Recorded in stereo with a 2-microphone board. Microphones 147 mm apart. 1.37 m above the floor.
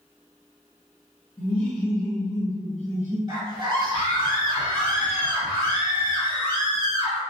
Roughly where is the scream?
Right.